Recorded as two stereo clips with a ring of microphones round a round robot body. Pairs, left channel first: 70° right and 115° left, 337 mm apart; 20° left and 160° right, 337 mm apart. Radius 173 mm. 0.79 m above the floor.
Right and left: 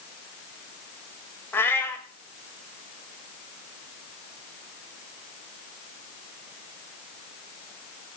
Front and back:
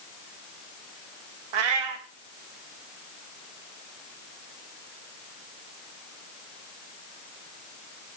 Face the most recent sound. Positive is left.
turn(degrees=-150)